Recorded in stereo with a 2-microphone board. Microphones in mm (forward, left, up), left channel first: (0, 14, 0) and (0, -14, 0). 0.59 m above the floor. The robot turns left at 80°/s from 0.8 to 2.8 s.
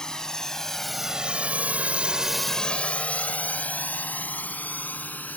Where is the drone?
20° left (ahead or behind); by 5.4 s 80° left.